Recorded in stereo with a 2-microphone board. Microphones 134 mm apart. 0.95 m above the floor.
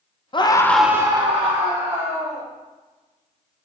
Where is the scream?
40° left (ahead or behind), 0.7 m; by 2.5 s 55° right (ahead or behind), 1.8 m.